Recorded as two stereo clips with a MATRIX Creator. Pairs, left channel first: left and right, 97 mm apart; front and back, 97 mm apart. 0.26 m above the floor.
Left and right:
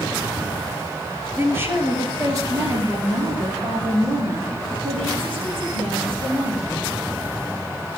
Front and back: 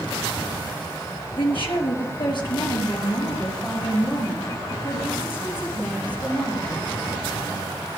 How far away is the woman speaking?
About 5.5 m.